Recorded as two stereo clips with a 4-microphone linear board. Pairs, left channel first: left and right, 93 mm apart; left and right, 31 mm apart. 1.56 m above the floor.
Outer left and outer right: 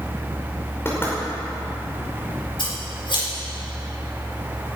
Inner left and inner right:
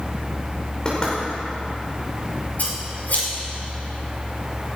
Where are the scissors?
60° left (ahead or behind), 6 m.